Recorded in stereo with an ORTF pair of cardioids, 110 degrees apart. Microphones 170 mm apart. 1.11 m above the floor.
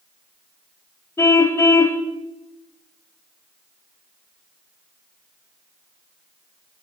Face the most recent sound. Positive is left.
turn(degrees=15)